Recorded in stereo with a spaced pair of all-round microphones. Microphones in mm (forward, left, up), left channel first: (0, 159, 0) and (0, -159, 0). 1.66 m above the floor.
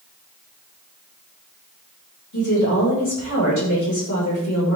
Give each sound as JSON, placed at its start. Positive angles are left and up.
{"t": 2.3, "sound": "a woman speaking", "side_deg": 65, "distance_m": 6.0}